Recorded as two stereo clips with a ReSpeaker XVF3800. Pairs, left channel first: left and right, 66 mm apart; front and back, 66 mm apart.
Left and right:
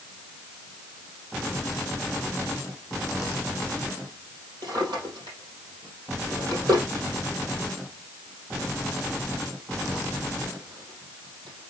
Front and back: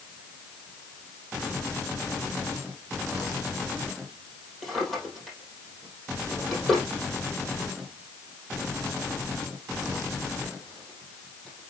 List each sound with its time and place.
4.6 s a drawer: 85° right, 5 m